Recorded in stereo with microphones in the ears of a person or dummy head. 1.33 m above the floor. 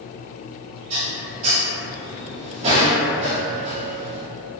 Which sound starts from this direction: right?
Dishes clattering, at 0.9 s.